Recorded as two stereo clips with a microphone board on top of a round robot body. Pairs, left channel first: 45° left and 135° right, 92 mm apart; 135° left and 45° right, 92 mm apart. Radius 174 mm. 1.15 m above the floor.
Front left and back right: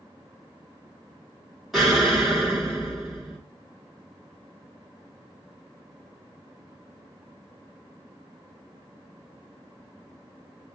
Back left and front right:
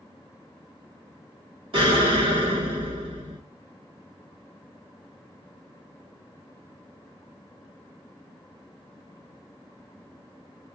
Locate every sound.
1.7 s an explosion: 50° right, 2.5 m